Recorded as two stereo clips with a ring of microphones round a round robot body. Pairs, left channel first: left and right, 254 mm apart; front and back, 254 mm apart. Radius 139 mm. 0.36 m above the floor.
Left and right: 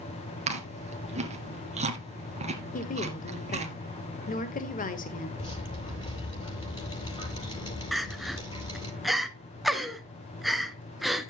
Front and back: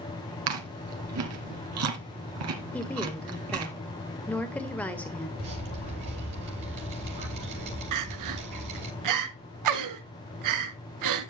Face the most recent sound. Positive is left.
turn(degrees=180)